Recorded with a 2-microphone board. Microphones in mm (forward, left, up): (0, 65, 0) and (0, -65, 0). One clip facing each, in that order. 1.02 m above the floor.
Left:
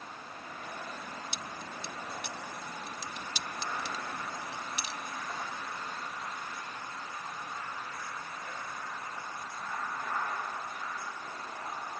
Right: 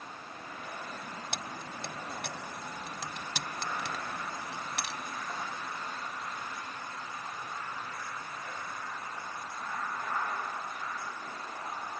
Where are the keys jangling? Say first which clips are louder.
Right 1 dB; 70° right (ahead or behind).